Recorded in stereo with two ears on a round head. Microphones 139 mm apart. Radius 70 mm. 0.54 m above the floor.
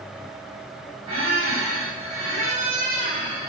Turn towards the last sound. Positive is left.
turn(degrees=-40)  # may be behind; listen again after turning